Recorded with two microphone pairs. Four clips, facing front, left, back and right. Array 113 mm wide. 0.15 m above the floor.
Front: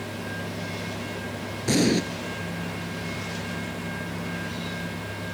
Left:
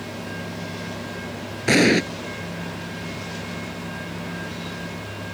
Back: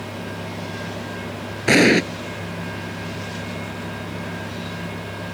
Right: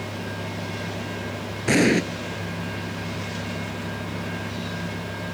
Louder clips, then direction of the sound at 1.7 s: Left 2 dB, back 7 dB; 165° left.